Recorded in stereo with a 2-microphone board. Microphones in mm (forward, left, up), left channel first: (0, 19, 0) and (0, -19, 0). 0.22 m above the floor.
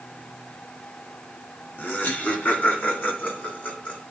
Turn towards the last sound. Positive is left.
turn(degrees=40)  # may be behind; listen again after turning